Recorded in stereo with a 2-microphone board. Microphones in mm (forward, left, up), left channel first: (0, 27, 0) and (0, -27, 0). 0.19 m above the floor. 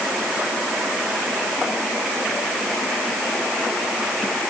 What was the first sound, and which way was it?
Only background noise.